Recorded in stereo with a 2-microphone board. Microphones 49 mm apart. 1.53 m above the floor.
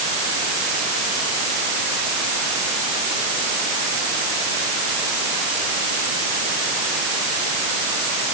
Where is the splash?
I don't hear a splash.